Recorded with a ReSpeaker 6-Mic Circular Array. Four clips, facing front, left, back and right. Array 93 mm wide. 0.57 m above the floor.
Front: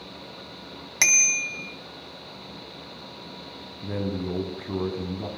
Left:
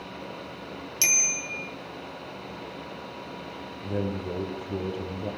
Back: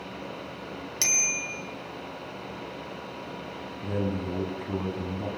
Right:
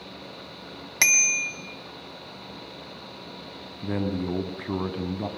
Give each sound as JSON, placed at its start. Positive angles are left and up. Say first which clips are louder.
{"t": 1.0, "sound": "a bicycle bell", "louder": "right 8 dB, front 9 dB", "azimuth_deg": -55, "distance_m": 3.0}
{"t": 3.8, "sound": "a man speaking", "louder": "right 3 dB, front 1 dB", "azimuth_deg": -85, "distance_m": 4.0}